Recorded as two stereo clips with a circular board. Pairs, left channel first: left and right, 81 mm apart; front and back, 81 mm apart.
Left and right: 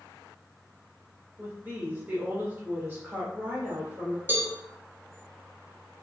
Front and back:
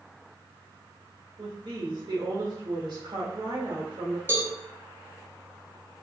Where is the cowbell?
135° right, 0.6 m.